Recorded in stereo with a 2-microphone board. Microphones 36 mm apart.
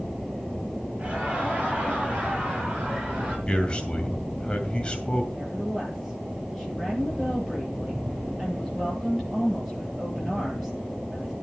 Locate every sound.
1.0 s laughter: 35° right (ahead or behind), 9 m; by 3.4 s 25° right (ahead or behind), 5.5 m
3.5 s a man speaking: 25° left (ahead or behind), 2 m
5.3 s a woman speaking: 10° right (ahead or behind), 9.5 m